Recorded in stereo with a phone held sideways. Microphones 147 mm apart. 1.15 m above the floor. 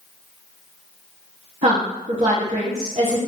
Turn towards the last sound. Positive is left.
turn(degrees=-45)  # may be behind; listen again after turning